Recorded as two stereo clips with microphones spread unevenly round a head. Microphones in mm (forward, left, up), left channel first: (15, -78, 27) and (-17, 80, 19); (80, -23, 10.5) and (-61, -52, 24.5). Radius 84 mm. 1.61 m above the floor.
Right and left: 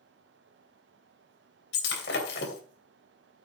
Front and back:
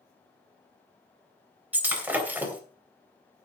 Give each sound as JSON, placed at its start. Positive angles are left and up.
{"t": 1.7, "sound": "breaking glass", "azimuth_deg": -95, "distance_m": 2.5}